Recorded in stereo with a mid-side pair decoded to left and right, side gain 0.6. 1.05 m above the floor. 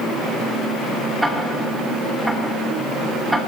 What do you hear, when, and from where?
1.2 s ticking: straight ahead, 10 m